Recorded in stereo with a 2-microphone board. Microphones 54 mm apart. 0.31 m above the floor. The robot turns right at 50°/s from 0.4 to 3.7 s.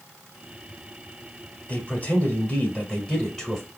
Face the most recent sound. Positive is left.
turn(degrees=180)